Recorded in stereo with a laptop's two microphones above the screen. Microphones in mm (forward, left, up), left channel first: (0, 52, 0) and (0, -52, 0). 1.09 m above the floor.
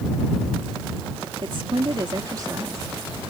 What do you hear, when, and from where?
1.4 s a woman speaking: 55° right (ahead or behind); by 3.2 s 20° right (ahead or behind)